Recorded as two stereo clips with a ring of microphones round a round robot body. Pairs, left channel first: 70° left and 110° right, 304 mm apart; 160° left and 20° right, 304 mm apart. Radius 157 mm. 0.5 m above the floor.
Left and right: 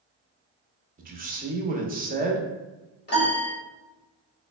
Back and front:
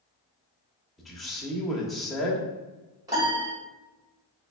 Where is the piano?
50° left, 1.5 m.